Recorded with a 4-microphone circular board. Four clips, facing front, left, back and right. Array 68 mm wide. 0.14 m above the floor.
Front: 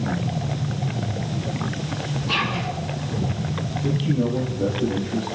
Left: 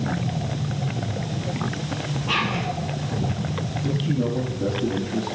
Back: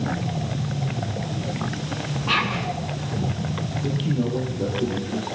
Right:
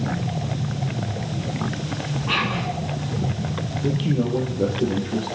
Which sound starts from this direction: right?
A man speaking, at 3.8 s.